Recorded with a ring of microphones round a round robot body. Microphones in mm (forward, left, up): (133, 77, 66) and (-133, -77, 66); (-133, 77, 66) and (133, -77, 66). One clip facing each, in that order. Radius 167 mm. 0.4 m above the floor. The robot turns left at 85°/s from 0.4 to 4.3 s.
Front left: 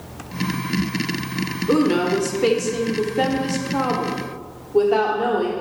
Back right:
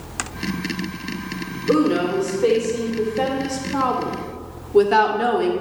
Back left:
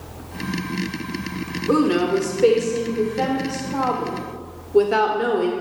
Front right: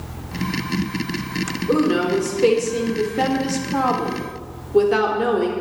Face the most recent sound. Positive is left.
turn(degrees=-115)